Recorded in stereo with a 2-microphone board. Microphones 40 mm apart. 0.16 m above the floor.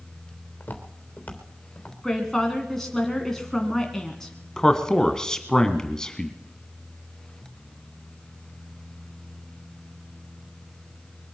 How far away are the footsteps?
About 3 m.